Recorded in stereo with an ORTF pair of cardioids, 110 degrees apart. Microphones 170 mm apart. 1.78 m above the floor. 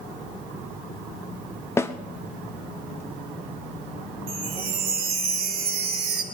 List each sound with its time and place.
1.8 s a snare drum: 15° left, 0.8 m
4.3 s a chime: 60° right, 2.5 m